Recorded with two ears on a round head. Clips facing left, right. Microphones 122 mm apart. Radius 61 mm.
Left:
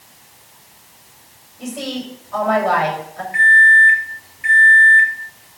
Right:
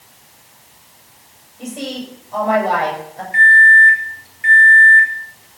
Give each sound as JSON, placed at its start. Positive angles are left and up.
{"t": 1.6, "sound": "a woman speaking", "side_deg": -25, "distance_m": 7.0}
{"t": 3.3, "sound": "a microwave", "side_deg": -35, "distance_m": 2.5}